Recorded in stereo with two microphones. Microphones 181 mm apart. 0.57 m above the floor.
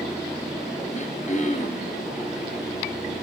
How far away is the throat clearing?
About 2 m.